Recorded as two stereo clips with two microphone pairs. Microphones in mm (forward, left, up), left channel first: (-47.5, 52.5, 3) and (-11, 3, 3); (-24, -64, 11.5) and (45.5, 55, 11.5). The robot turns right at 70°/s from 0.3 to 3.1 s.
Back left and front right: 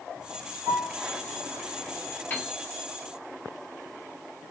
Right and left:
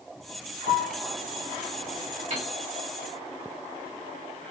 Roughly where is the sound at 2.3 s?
Left.